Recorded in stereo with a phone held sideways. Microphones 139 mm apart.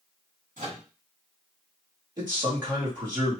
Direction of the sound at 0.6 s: 75° right (ahead or behind).